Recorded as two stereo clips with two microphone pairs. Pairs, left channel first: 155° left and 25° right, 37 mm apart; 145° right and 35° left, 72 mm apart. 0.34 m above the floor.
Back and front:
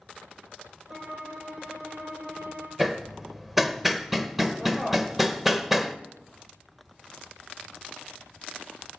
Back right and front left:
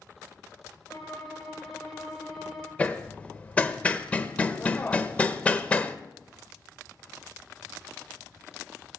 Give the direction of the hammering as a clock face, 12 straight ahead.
3 o'clock.